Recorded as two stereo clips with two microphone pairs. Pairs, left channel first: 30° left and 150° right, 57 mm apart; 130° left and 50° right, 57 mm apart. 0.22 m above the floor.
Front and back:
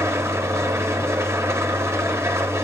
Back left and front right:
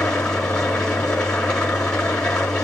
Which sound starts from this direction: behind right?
An engine running, at 0.0 s.